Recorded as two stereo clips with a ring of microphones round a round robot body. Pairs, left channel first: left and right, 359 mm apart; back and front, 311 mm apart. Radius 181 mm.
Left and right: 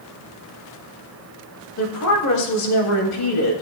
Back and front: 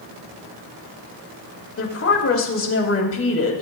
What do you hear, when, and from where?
1.8 s a woman speaking: 135° left, 3 m